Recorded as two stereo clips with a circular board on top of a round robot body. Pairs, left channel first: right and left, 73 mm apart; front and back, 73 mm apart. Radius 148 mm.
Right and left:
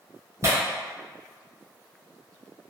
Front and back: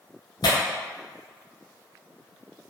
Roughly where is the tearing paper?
Ahead left.